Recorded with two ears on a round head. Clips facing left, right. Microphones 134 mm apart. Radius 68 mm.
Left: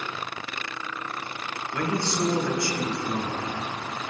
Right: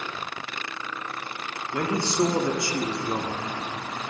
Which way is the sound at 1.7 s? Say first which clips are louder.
Right 2 dB; 20° right (ahead or behind).